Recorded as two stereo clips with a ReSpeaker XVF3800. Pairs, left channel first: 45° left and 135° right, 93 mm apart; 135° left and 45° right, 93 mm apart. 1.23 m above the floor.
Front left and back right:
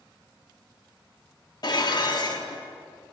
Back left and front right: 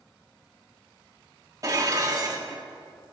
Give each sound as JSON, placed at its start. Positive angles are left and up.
{"t": 1.6, "sound": "dishes clattering", "azimuth_deg": 5, "distance_m": 1.4}